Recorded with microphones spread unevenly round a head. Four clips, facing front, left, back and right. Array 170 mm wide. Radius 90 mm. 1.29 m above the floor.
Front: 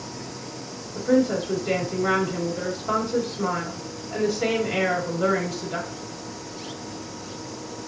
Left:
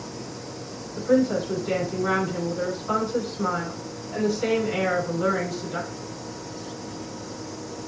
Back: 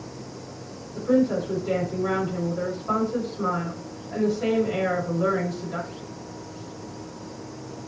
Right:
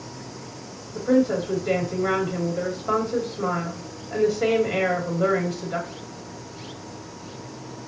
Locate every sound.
0.9 s a woman speaking: 80° right, 3 m